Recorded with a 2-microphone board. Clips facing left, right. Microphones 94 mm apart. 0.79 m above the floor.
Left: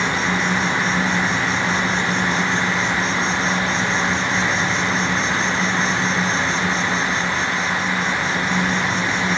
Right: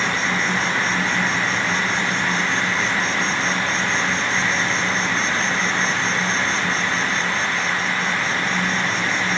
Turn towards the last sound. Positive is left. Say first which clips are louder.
# left 2 dB
turn(degrees=0)  # may be behind; listen again after turning